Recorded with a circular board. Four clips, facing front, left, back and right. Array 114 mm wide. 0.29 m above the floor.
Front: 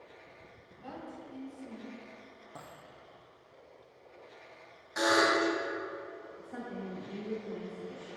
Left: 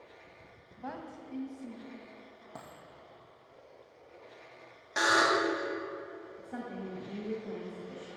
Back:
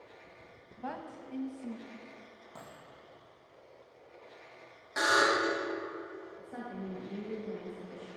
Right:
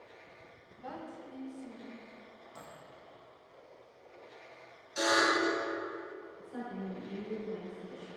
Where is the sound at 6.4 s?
95° left, 2 m.